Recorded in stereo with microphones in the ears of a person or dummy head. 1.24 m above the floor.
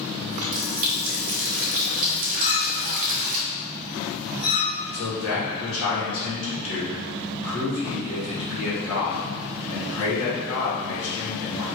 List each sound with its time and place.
0.3 s a running tap: 40° right (ahead or behind), 0.6 m
2.4 s a clink: 75° left (ahead or behind), 1.7 m
4.9 s a man speaking: 75° left (ahead or behind), 1.9 m